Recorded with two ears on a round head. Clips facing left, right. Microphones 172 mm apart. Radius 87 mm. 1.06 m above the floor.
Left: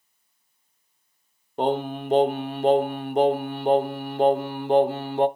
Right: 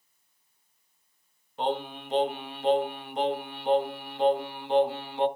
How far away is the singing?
About 0.7 m.